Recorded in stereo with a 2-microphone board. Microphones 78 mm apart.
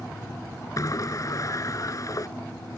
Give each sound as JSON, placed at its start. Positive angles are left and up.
{"t": 0.8, "sound": "a sliding door", "side_deg": 45}